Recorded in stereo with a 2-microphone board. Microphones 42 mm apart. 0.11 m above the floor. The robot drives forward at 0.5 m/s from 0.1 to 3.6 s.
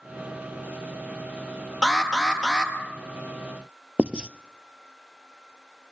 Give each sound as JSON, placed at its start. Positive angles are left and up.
{"t": 1.8, "sound": "an alarm", "side_deg": -5, "distance_m": 3.5}
{"t": 4.0, "sound": "writing", "side_deg": -25, "distance_m": 0.6}